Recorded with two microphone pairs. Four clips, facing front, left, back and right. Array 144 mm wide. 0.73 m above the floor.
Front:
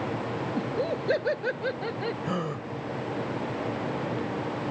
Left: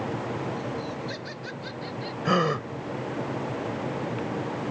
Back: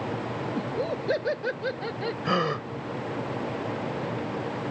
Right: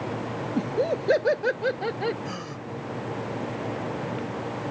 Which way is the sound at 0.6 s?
80° right.